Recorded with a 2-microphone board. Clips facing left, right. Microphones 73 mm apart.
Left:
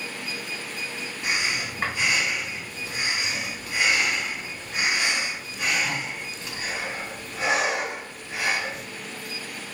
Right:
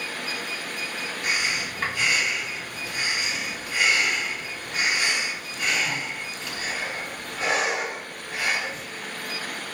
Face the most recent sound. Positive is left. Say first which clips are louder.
# even
turn(degrees=15)  # may be behind; listen again after turning